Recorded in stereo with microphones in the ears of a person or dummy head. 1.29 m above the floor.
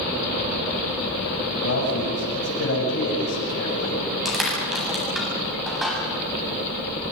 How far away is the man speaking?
About 8.5 m.